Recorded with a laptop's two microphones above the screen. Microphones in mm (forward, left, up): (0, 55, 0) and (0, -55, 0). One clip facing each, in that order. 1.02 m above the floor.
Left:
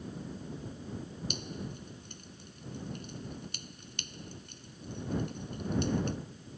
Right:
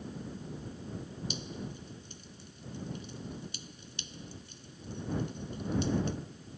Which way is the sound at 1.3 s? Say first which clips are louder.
Left 1 dB; 55° left (ahead or behind).